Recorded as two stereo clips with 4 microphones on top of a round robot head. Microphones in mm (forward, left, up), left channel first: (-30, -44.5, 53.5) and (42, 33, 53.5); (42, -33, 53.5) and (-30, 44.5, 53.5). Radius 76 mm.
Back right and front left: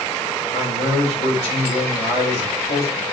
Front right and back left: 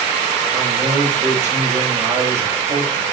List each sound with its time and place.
0.5 s a man speaking: 160° right, 6 m